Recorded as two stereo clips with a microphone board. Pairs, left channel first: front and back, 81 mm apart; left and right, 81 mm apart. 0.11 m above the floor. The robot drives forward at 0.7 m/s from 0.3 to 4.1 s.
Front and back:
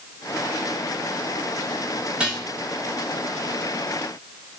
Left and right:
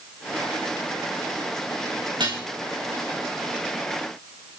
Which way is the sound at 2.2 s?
105° right.